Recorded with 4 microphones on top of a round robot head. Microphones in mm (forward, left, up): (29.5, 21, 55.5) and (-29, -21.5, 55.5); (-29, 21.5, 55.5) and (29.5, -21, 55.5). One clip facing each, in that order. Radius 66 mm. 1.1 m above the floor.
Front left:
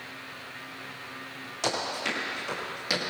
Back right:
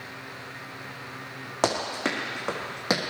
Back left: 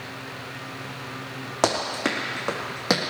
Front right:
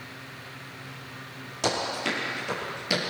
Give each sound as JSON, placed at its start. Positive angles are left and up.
{"t": 1.6, "sound": "running footsteps", "azimuth_deg": 175, "distance_m": 5.0}